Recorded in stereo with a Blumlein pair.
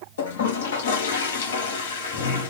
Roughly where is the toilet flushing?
Ahead left.